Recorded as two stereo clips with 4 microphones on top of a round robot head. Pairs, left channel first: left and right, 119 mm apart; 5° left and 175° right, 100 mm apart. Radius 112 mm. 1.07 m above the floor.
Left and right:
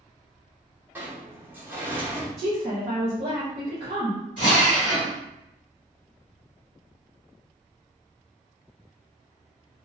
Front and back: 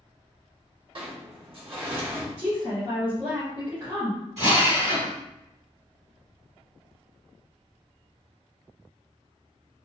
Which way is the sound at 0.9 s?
165° right.